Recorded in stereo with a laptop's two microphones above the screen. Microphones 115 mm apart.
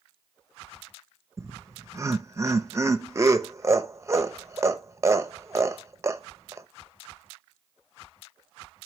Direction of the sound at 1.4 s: 25° right (ahead or behind).